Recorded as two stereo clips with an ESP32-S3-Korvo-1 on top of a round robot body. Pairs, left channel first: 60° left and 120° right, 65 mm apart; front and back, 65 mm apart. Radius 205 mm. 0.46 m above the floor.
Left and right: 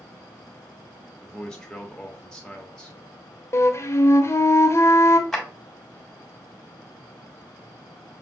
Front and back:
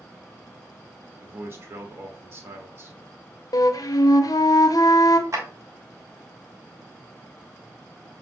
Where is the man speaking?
135° left, 1.6 m.